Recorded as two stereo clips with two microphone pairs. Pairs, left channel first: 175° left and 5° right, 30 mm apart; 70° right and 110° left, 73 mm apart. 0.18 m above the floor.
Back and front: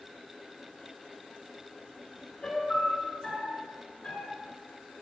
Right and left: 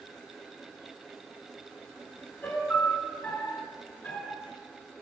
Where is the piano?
135° right, 1.4 m.